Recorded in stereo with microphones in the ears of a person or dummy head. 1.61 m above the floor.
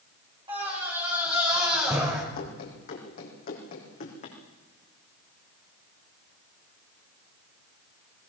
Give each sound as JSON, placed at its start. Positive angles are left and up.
{"t": 0.5, "sound": "a scream", "side_deg": -25, "distance_m": 7.0}
{"t": 2.4, "sound": "running footsteps", "side_deg": 45, "distance_m": 4.0}